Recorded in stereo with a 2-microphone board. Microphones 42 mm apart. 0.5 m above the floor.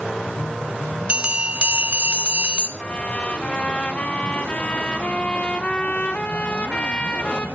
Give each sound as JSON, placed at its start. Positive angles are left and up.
{"t": 1.1, "sound": "a bell", "side_deg": -25, "distance_m": 1.4}
{"t": 2.8, "sound": "a trumpet", "side_deg": 30, "distance_m": 1.5}